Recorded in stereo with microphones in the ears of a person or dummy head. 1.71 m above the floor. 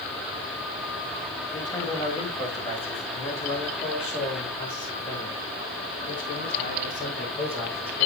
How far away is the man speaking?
About 3 m.